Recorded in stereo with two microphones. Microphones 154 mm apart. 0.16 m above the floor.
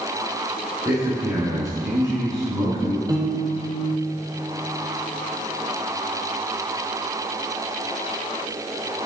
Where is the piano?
25° right (ahead or behind), 0.9 m.